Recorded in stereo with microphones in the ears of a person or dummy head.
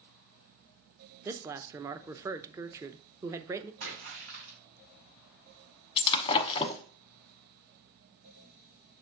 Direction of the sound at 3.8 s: 70° right (ahead or behind).